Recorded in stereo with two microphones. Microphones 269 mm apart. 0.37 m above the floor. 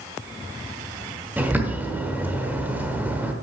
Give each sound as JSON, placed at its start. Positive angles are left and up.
{"t": 1.4, "sound": "a bird", "side_deg": -5, "distance_m": 1.0}